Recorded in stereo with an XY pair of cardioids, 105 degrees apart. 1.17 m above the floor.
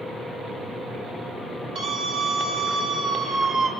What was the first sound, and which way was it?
A scream, 65° right.